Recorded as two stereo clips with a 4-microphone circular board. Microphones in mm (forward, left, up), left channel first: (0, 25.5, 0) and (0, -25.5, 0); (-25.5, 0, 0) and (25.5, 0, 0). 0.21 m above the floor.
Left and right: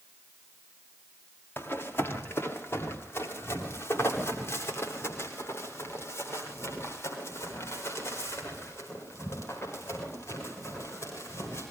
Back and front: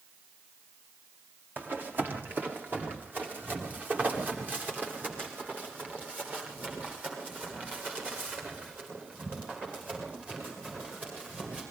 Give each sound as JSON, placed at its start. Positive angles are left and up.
{"t": 1.6, "sound": "running footsteps", "azimuth_deg": 45, "distance_m": 5.0}